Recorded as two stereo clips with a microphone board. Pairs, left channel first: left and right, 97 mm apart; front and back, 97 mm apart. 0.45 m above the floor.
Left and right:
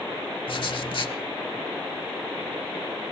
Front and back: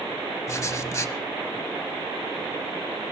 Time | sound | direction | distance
0.5 | writing | 60° left | 0.7 m